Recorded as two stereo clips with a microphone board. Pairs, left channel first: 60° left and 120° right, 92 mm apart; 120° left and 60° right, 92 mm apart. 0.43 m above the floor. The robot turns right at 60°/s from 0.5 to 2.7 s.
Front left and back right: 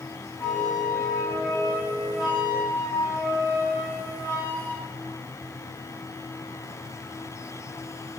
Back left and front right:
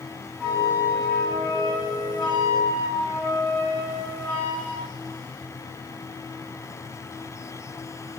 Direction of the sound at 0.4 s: 45° left.